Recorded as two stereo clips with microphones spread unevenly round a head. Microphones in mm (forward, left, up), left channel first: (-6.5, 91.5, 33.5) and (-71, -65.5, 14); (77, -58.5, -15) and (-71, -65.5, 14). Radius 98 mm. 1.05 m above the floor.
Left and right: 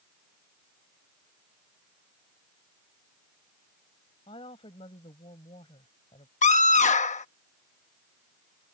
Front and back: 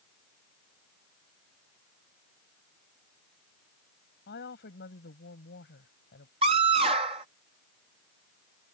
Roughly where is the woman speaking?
Ahead.